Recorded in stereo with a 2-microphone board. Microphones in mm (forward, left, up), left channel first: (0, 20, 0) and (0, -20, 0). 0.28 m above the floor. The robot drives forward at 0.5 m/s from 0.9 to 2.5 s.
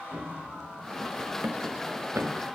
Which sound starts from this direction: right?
Running footsteps, at 0.1 s.